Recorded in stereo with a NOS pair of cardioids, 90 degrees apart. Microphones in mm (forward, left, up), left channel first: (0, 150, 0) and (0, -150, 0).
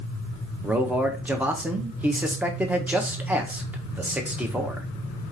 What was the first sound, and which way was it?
A man speaking, 5° right.